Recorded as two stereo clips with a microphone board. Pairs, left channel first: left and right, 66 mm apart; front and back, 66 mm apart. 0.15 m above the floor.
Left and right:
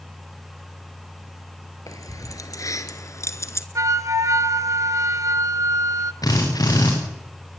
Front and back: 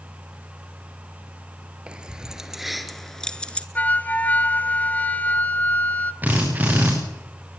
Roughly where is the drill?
Behind left.